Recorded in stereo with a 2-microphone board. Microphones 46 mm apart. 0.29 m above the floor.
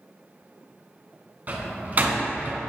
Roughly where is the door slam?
Right.